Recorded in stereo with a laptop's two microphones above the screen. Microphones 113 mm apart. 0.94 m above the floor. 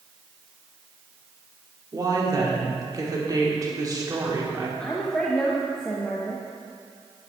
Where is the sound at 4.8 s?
5° left (ahead or behind), 0.7 m.